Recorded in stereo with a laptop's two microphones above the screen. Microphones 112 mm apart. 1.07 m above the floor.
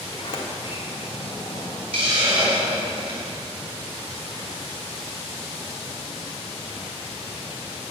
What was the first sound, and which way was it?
A sliding door, 50° left (ahead or behind).